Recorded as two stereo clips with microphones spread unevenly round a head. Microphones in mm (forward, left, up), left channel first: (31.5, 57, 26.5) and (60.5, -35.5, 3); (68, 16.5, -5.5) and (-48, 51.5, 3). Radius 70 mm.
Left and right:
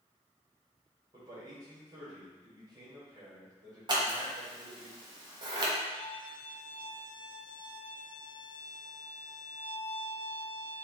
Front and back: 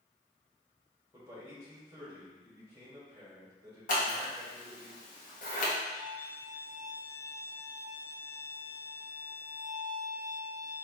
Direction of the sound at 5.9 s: 50° left.